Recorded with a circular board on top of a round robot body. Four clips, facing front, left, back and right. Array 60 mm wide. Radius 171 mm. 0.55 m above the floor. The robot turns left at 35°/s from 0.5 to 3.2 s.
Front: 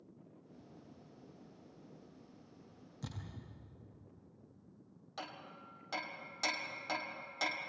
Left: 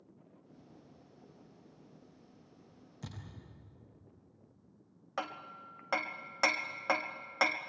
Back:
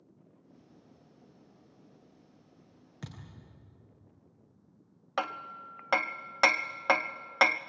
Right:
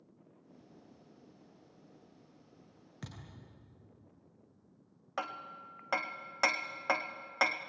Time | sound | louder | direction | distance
3.0 | a thud | left 1 dB, back 1 dB | 140° right | 5.5 m
5.2 | hammering | right 1 dB, back 14 dB | straight behind | 0.6 m